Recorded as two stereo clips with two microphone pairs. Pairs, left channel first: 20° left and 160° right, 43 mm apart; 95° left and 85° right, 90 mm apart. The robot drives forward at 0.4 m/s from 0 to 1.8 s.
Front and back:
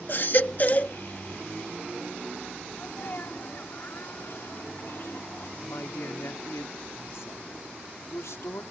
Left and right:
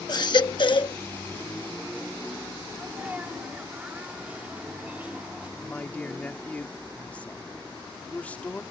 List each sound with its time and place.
0.1 s a baby crying: 55° left; by 0.9 s 75° left
2.7 s a sneeze: 10° right
5.6 s a man speaking: 20° left